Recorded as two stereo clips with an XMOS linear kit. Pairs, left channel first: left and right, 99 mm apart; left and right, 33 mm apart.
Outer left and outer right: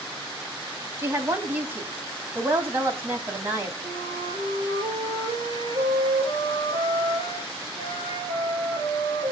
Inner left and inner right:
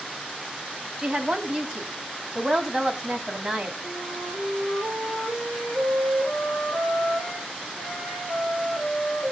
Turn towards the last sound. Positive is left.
turn(degrees=-55)  # may be behind; listen again after turning